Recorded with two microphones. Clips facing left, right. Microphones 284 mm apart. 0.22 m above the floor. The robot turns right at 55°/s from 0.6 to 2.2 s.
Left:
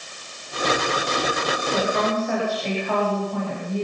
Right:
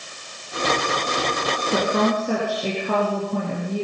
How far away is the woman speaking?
About 4 m.